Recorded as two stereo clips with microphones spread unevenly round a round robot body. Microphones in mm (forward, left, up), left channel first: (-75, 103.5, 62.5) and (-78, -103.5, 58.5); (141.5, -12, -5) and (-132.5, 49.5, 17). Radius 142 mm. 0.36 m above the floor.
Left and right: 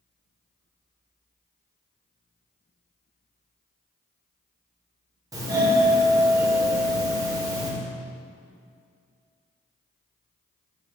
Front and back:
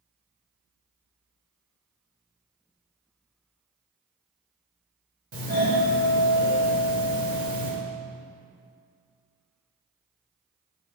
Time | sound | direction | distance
5.3 | a doorbell | 150° right | 1.9 m